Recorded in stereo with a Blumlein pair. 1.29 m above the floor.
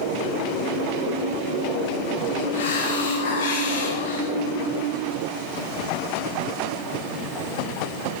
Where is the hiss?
60° left, 1.7 m.